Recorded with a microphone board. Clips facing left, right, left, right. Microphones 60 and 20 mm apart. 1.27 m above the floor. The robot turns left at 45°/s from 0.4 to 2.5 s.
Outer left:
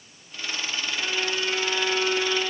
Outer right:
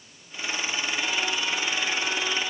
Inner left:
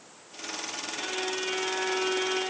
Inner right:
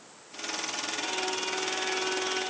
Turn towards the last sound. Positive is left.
turn(degrees=80)